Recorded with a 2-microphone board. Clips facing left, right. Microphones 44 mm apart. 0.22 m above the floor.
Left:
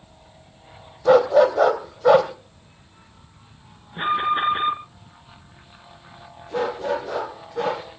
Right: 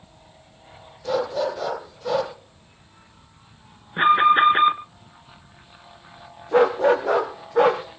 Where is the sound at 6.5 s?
50° right (ahead or behind), 5 m.